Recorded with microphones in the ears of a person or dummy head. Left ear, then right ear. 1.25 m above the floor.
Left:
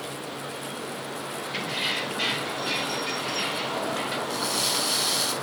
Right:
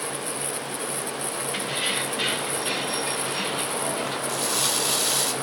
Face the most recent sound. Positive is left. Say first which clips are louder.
# right 1 dB
turn(degrees=-75)  # may be behind; listen again after turning